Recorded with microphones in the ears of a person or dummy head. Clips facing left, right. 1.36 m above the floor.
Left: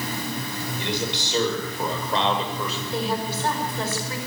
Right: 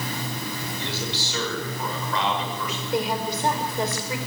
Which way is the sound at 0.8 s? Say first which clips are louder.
Left 6 dB; 15° left (ahead or behind).